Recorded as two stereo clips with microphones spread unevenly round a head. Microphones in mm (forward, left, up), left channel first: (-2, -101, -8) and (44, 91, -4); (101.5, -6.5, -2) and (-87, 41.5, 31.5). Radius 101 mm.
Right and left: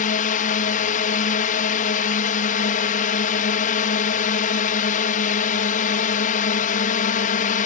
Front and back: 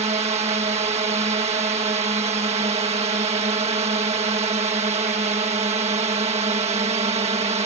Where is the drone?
135° right.